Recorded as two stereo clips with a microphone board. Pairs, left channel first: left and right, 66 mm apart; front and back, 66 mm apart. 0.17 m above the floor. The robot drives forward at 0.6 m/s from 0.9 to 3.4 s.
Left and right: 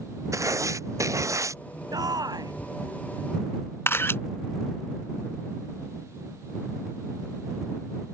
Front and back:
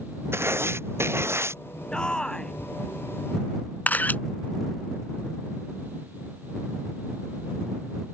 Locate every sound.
0.3 s writing: 130° right
1.9 s a shout: 75° right; by 2.5 s 80° right
3.9 s a camera shutter: 50° left